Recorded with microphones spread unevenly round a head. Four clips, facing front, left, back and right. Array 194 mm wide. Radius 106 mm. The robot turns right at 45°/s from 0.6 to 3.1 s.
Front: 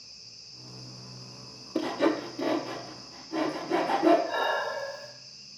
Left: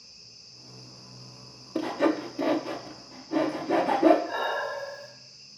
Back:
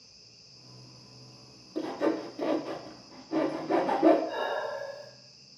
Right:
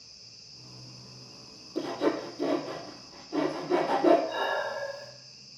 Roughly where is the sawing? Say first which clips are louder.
Left 3 dB, front 3 dB; ahead left.